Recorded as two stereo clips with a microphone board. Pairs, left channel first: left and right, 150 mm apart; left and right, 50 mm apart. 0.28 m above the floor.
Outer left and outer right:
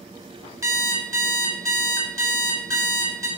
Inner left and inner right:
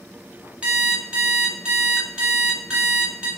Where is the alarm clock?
20° right (ahead or behind), 1.0 m.